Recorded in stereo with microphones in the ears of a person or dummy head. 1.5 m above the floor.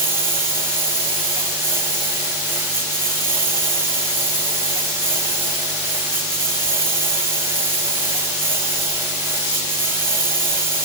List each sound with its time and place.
0.0 s a lawn mower: 10° right (ahead or behind)